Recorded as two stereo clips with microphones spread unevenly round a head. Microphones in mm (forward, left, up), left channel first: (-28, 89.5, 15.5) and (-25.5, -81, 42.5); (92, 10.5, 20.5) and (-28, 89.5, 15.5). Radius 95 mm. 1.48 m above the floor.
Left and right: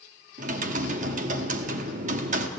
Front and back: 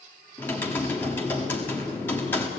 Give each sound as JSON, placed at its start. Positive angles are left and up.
{"t": 0.4, "sound": "typing on a keyboard", "azimuth_deg": -110, "distance_m": 1.3}